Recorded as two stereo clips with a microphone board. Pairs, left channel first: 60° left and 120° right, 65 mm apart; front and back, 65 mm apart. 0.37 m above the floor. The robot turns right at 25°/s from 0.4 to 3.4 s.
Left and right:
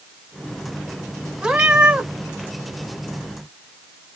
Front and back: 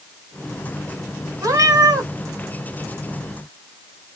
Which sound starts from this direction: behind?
A cat meowing, at 1.4 s.